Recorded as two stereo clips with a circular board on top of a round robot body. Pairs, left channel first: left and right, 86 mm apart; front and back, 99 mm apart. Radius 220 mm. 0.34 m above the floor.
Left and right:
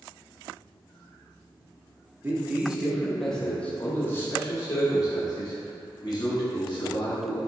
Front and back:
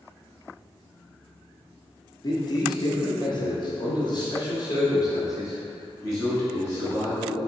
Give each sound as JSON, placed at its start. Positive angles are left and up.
{"t": 2.2, "sound": "a man speaking", "azimuth_deg": -30, "distance_m": 1.4}